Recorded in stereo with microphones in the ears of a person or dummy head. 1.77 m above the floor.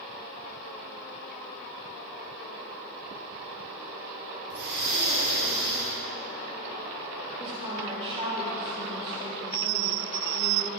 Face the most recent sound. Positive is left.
turn(degrees=-25)  # may be behind; listen again after turning